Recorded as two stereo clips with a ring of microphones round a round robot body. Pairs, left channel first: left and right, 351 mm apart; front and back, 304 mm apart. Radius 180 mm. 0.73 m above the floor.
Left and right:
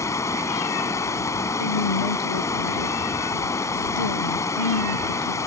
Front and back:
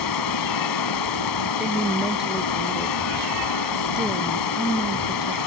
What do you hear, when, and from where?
0.0 s running water: 10° left
1.6 s a woman speaking: 90° left